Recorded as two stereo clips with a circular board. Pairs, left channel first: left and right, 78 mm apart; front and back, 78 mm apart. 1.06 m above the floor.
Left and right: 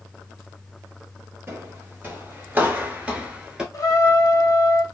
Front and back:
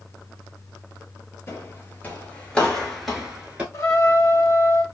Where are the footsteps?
45° right, 1.4 m; by 3.6 s 150° right, 1.0 m.